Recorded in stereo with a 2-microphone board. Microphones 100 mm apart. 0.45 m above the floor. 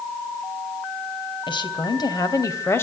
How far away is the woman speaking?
About 3.5 m.